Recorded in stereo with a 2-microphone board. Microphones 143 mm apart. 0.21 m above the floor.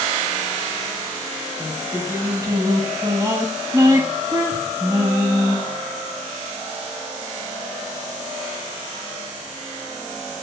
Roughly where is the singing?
Right.